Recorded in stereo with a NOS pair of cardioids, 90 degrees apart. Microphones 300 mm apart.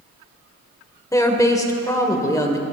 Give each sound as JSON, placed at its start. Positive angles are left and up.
{"t": 1.1, "sound": "a woman speaking", "azimuth_deg": 10, "distance_m": 1.4}